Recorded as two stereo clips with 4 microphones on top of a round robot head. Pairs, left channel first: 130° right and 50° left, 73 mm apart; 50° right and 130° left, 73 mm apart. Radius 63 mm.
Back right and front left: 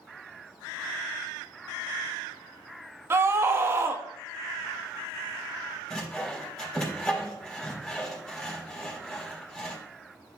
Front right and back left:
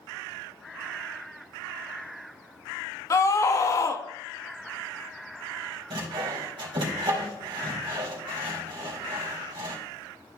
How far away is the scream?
About 0.9 m.